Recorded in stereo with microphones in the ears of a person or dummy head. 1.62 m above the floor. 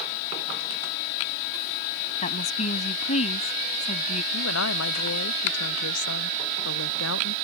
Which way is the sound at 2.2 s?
40° left (ahead or behind).